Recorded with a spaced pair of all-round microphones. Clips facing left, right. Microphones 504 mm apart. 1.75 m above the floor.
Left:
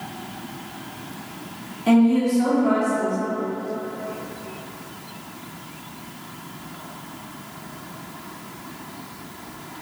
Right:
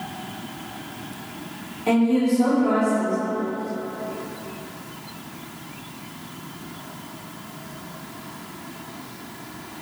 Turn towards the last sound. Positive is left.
turn(degrees=35)  # may be behind; listen again after turning